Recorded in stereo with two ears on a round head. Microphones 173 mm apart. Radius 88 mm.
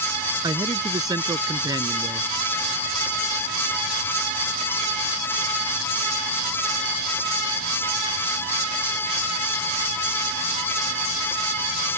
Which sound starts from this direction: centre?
A man speaking, at 0.4 s.